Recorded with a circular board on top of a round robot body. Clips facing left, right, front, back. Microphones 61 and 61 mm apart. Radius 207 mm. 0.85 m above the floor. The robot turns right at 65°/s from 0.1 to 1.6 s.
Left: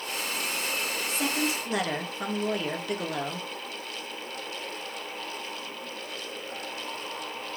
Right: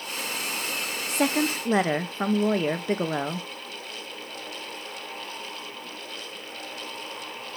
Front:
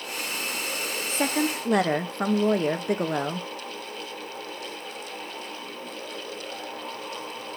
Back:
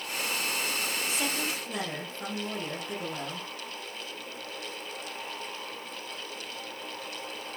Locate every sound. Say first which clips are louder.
1.1 s a woman speaking: right 6 dB, front 6 dB; 60° right, 0.8 m; by 3.5 s 30° right, 0.8 m